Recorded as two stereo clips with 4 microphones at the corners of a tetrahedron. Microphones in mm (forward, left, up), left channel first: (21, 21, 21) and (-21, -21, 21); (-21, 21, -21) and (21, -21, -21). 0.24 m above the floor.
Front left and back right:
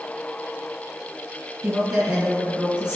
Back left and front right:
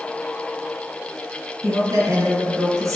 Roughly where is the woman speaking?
Ahead right.